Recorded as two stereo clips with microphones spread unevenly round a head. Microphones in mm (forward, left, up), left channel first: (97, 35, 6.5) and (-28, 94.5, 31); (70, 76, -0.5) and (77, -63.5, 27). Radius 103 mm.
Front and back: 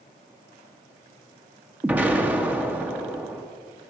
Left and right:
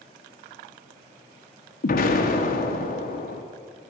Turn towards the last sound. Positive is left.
turn(degrees=75)